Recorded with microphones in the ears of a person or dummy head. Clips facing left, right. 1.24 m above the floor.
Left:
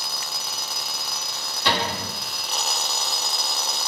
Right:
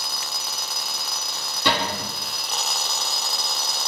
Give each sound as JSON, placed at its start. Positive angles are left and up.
{"t": 1.6, "sound": "a cupboard door", "side_deg": -70, "distance_m": 0.7}